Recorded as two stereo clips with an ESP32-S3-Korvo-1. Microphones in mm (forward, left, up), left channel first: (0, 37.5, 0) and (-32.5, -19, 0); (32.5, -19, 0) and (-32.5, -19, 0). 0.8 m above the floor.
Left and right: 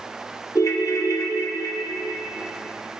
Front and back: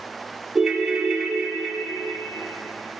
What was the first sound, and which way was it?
A ringtone, 100° left.